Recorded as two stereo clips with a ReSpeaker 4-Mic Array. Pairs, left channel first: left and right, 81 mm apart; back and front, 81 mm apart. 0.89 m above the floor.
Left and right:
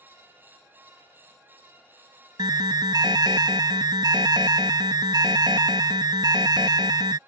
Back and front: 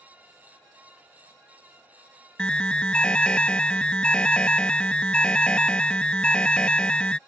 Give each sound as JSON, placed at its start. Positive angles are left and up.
{"t": 2.4, "sound": "an alarm", "azimuth_deg": -105}